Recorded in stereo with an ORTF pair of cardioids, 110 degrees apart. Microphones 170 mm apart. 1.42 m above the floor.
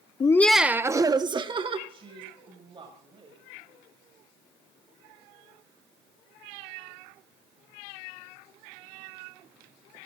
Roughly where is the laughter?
Ahead left.